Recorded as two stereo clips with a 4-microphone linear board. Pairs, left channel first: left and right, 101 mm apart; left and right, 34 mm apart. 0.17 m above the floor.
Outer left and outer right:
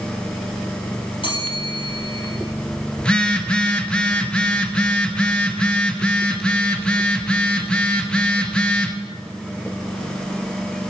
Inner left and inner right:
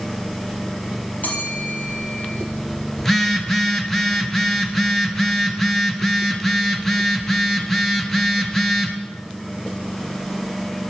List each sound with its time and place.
1.2 s a bell: 55° left (ahead or behind), 3.5 m
3.0 s a phone buzzing: 10° left (ahead or behind), 0.9 m